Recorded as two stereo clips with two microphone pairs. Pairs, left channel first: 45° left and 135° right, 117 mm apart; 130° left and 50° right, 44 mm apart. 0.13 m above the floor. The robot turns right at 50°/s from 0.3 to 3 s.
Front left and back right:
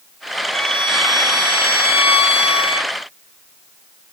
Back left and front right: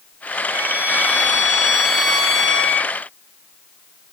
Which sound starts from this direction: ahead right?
A violin, at 0.5 s.